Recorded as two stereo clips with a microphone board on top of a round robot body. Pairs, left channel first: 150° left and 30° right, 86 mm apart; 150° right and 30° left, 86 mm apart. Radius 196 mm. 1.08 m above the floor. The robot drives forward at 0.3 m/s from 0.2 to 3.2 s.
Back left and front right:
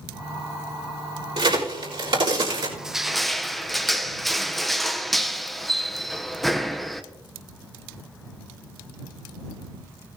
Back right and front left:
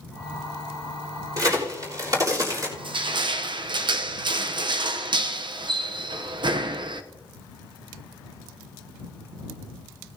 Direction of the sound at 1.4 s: 15° right.